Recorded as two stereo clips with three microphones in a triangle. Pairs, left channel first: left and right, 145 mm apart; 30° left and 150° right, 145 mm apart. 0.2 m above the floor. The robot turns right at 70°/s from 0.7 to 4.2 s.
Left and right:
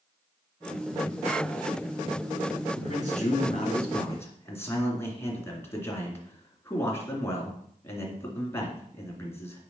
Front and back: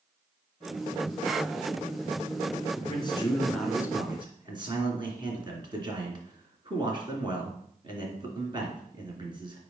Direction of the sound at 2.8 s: 60° left.